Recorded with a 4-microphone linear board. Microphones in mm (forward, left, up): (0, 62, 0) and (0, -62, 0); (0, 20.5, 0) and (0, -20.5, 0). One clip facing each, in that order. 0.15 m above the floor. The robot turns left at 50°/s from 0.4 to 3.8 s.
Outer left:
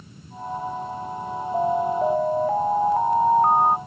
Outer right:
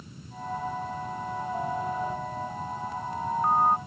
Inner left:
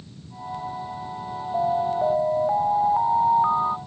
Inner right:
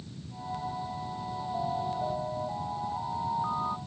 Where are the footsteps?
No footsteps in this recording.